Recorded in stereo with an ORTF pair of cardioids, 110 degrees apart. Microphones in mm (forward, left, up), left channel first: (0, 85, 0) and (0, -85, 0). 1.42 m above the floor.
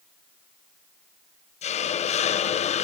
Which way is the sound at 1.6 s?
45° left.